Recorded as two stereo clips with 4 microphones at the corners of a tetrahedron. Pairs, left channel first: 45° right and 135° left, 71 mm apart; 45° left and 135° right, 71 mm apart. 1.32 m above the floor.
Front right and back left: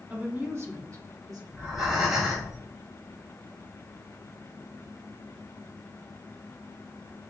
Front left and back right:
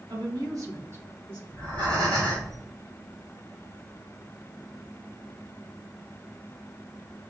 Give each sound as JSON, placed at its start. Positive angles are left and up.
{"t": 0.1, "sound": "a woman speaking", "azimuth_deg": -155, "distance_m": 1.0}
{"t": 1.5, "sound": "breathing", "azimuth_deg": -140, "distance_m": 2.0}